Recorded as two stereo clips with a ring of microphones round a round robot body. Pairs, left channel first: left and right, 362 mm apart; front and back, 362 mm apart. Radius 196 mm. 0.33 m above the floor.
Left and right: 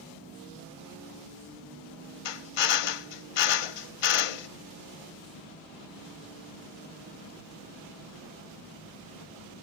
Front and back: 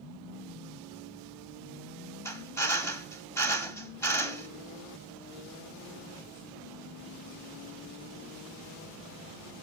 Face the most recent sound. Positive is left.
turn(degrees=85)